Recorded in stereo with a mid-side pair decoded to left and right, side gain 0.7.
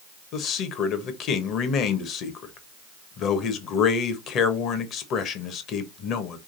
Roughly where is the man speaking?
Ahead left.